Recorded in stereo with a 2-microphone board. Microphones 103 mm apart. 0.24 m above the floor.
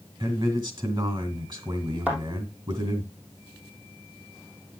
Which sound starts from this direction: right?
A man speaking, at 0.2 s.